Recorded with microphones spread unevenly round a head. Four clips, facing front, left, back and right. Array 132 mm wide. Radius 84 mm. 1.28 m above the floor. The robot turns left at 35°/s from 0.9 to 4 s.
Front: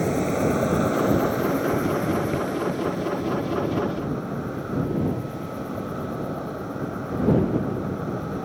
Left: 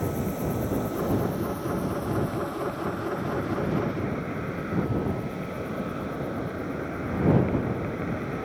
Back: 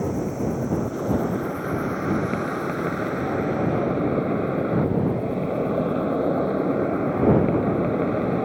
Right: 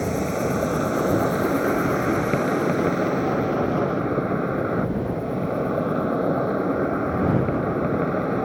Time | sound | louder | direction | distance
0.0 | an insect | right 5 dB, front 3 dB | 40° right | ?